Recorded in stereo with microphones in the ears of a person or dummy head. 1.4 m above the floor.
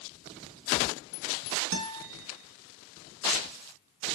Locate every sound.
1.7 s a guitar: 65° right (ahead or behind), 2.5 m